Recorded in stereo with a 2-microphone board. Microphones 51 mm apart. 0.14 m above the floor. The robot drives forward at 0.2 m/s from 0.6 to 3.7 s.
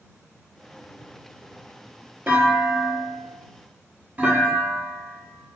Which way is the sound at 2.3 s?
35° right (ahead or behind).